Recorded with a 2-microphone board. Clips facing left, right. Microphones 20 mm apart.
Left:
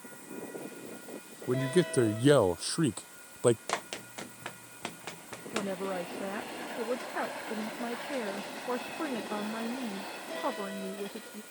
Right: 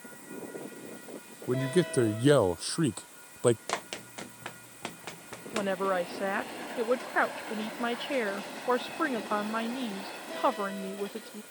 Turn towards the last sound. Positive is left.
turn(degrees=-75)  # may be behind; listen again after turning